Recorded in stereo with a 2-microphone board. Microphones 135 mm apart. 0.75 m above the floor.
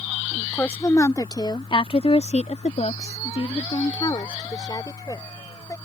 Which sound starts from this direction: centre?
A woman speaking, at 0.3 s.